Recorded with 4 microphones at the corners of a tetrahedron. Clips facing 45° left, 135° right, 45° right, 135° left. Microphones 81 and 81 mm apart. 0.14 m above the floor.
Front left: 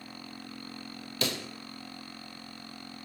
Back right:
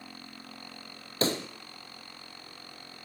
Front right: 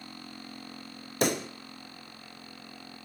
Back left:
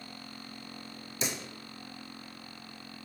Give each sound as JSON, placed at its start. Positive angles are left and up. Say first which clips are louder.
{"t": 1.2, "sound": "a pop", "louder": "back right 5 dB, front right 10 dB", "azimuth_deg": -80, "distance_m": 1.4}